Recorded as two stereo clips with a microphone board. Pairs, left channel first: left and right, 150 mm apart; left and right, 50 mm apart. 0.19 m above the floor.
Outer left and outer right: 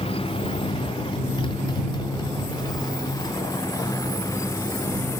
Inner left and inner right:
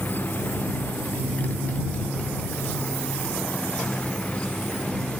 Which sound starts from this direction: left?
A motorcycle, at 0.0 s.